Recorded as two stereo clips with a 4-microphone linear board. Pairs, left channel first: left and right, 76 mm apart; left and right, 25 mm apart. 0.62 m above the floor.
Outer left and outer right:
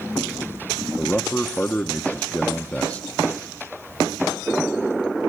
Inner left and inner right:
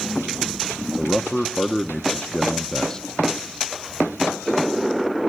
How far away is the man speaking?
About 0.9 m.